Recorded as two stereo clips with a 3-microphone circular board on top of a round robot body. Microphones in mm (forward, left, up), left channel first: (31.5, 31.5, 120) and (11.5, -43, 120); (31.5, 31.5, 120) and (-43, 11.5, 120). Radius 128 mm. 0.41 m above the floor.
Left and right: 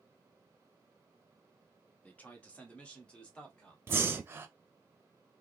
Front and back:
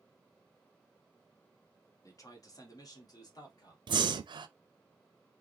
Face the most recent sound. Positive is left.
turn(degrees=-165)